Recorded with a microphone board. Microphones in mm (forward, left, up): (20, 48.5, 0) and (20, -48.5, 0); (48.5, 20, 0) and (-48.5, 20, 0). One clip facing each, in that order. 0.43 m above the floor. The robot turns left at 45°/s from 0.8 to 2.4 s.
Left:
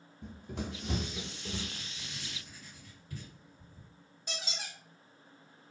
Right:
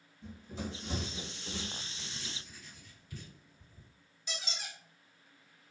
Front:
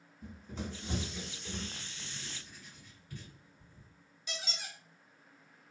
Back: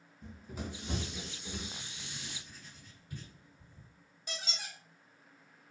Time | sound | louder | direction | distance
0.2 | running footsteps | left 1 dB, front 1 dB | 80° left | 0.7 m
1.8 | writing | even, even | 145° left | 2.0 m
4.3 | a squeak | left 1 dB, even | 130° left | 1.2 m